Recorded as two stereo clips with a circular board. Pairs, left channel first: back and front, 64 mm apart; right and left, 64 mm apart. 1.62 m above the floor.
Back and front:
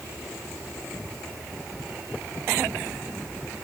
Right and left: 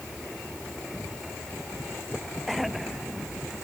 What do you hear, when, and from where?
Only background noise.